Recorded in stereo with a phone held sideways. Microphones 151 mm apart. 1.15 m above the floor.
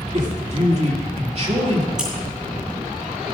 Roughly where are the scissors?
Centre.